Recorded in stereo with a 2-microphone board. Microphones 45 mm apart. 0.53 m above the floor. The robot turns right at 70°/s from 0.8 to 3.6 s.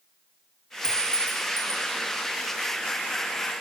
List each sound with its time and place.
0.8 s a clink: 25° left, 0.8 m; by 1.9 s 100° left, 0.8 m